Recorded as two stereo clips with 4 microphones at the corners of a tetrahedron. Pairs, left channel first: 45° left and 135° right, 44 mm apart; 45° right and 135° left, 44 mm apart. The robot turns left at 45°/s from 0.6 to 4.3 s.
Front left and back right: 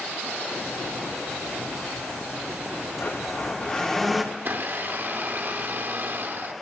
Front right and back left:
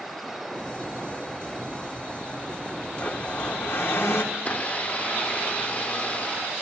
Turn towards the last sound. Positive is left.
turn(degrees=-95)